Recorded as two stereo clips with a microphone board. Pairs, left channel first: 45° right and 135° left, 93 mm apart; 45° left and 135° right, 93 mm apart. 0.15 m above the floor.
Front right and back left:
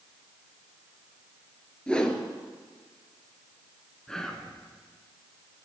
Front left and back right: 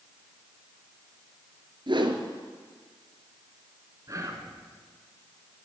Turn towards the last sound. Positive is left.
turn(degrees=-125)